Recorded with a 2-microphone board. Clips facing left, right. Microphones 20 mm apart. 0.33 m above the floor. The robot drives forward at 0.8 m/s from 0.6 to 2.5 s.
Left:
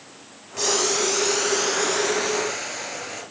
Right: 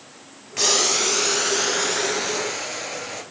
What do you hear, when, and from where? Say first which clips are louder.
0.6 s boiling: right 2 dB; 35° right (ahead or behind), 0.7 m; by 3.2 s 10° right (ahead or behind), 2 m